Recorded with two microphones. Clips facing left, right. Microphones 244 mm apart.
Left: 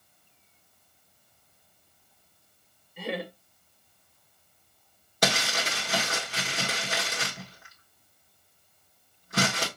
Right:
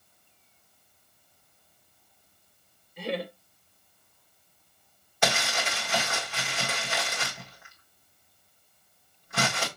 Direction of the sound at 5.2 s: 40° left (ahead or behind).